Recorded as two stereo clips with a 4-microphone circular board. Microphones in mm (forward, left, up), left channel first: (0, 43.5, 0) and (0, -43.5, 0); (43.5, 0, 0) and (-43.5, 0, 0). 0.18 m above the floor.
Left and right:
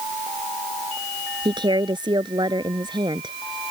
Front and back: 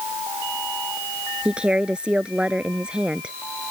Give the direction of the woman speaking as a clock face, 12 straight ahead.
3 o'clock.